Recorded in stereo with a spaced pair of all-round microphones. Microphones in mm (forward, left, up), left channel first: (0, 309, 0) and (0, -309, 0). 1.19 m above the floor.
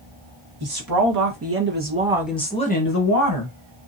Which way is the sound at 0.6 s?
35° right (ahead or behind).